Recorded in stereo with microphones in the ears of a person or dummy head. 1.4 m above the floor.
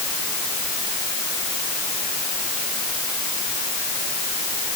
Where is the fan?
I don't hear a fan.